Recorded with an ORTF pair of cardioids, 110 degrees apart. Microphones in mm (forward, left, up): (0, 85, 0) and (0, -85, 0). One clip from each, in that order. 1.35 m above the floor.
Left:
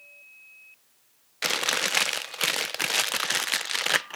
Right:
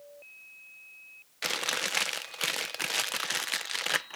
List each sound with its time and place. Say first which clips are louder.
1.4 s chewing: left 5 dB; 25° left